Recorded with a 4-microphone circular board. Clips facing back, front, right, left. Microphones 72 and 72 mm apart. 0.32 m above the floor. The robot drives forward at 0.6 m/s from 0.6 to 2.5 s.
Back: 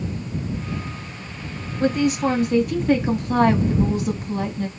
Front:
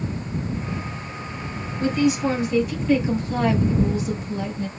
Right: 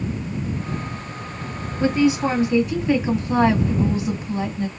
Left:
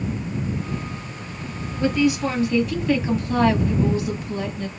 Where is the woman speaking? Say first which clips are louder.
Back 1 dB, right 2 dB; 145° right, 1.4 m; by 4.7 s 155° right, 1.7 m.